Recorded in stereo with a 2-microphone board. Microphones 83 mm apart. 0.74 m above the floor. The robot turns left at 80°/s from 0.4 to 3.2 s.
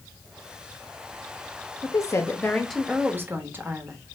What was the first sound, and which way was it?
A woman speaking, 75° left.